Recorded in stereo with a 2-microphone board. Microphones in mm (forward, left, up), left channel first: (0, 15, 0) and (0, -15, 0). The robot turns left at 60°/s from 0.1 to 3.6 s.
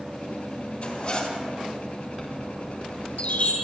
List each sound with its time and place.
0.8 s a zipper: 50° left, 3 m; by 1.4 s 15° left, 3 m
2.2 s a chime: 15° right (ahead or behind), 4.5 m; by 3.5 s 65° left (ahead or behind), 4.5 m